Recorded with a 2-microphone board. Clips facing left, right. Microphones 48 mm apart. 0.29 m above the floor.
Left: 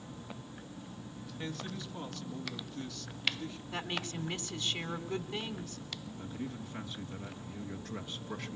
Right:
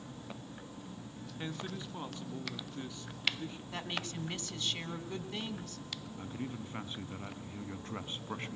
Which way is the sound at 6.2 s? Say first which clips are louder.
Even; 30° right (ahead or behind).